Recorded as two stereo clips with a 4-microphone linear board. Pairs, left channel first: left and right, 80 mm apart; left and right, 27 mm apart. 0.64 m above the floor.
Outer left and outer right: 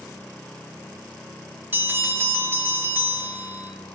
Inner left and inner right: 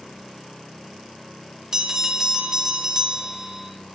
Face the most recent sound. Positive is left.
turn(degrees=-25)  # may be behind; listen again after turning